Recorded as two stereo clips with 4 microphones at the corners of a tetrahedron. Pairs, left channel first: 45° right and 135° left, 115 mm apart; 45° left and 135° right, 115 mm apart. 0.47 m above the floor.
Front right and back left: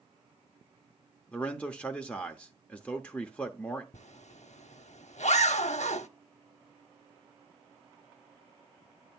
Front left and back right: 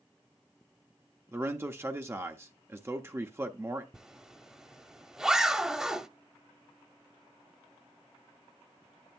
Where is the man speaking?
105° right, 0.7 m.